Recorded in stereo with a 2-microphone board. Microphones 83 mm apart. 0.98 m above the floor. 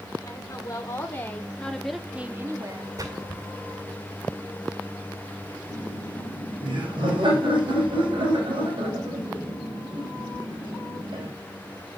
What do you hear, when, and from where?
0.2 s a woman speaking: 40° left (ahead or behind), 3.5 m; by 2.9 s 55° right (ahead or behind), 1.6 m
3.0 s a splash: 50° right (ahead or behind), 2.5 m
5.7 s laughter: 80° right, 4.5 m